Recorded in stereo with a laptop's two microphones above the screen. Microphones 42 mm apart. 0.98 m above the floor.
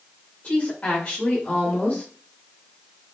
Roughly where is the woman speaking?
Left.